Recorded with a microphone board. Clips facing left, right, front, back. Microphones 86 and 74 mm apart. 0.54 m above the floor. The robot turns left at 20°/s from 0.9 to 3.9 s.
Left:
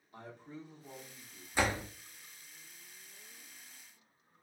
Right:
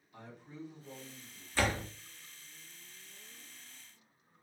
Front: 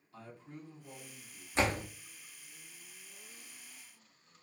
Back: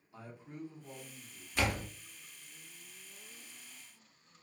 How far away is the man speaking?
About 1.0 m.